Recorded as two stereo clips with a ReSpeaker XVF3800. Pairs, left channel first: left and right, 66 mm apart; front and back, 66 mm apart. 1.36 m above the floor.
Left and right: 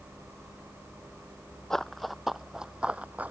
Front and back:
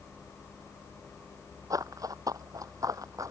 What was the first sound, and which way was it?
Running footsteps, 170° left.